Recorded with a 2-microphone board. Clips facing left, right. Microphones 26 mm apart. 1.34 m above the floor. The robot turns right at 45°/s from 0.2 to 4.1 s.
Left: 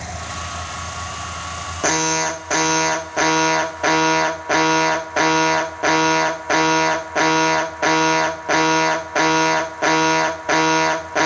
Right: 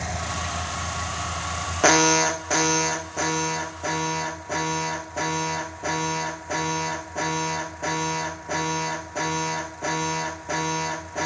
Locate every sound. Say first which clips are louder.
1.8 s an alarm: right 1 dB; 15° right, 0.7 m; by 11.3 s 90° left, 0.7 m